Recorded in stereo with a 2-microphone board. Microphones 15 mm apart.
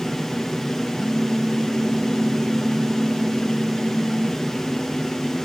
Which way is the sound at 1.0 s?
85° right.